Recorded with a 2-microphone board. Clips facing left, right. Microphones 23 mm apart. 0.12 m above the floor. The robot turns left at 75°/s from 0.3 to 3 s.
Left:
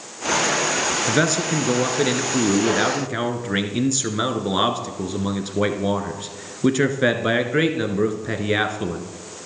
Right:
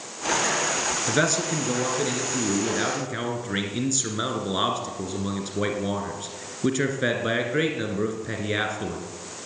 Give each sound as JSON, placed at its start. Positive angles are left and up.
{"t": 1.1, "sound": "a man speaking", "azimuth_deg": 170, "distance_m": 1.3}